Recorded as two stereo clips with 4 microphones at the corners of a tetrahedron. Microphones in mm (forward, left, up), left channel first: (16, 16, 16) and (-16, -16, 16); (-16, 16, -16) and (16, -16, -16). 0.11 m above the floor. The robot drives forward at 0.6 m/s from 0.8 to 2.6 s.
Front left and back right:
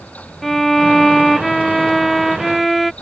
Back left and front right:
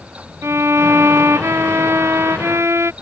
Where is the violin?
40° right; by 2.9 s 45° right.